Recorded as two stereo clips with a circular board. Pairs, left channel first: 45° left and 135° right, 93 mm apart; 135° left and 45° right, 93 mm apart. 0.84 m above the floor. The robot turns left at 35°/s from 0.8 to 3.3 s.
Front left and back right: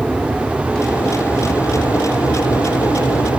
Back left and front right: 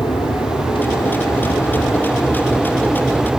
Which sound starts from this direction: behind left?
An aircraft, at 0.0 s.